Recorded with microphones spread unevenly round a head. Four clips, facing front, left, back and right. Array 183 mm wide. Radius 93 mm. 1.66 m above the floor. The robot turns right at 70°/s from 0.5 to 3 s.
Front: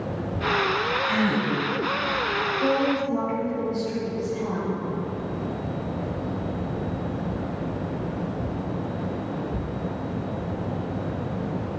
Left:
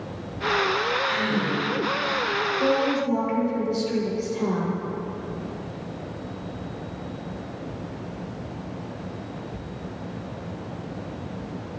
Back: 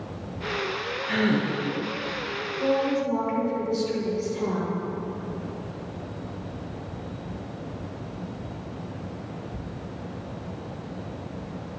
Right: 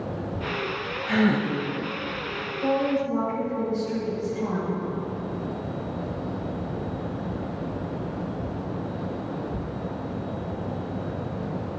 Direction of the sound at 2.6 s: 95° left.